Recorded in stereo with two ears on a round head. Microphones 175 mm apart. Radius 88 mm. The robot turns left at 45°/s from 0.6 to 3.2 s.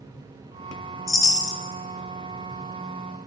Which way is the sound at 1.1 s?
15° left (ahead or behind).